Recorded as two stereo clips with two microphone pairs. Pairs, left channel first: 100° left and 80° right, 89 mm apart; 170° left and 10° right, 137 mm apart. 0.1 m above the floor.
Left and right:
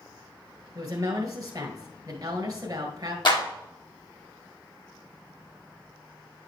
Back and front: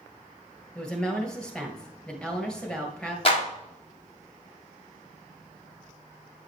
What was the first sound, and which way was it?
A woman speaking, 105° right.